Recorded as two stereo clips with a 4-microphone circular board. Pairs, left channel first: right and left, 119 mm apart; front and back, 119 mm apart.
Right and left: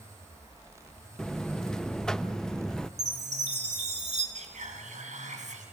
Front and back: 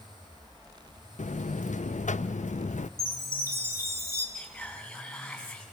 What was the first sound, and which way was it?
A buzzer, 5° right.